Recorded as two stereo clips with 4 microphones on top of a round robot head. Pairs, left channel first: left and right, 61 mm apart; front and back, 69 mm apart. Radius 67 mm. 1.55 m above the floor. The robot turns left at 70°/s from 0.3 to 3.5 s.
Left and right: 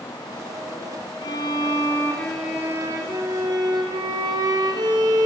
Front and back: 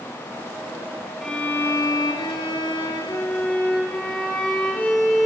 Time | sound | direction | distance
1.2 | a violin | 85° left | 4.5 m